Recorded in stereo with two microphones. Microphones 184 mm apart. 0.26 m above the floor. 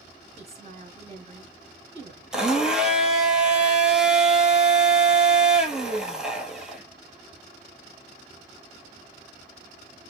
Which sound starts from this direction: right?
A woman speaking, at 0.4 s.